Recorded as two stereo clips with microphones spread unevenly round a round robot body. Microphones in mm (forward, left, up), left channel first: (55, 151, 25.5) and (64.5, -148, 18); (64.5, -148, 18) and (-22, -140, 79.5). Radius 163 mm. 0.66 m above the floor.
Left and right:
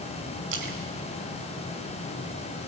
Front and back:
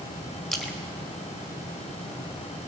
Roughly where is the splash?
Right.